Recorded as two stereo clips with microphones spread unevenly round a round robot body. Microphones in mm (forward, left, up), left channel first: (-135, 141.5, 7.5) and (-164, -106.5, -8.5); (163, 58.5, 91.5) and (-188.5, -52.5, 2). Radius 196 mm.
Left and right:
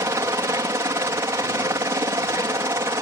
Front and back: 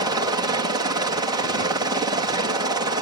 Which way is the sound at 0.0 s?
155° right.